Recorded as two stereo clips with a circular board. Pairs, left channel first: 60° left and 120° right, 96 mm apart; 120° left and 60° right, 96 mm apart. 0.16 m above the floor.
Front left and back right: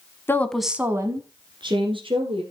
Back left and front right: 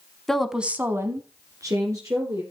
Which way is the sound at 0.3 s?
40° left.